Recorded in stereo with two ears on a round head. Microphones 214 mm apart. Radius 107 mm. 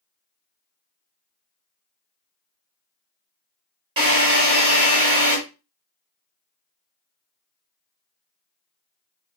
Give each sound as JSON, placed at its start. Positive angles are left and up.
{"t": 4.0, "sound": "a drill", "side_deg": -20, "distance_m": 2.0}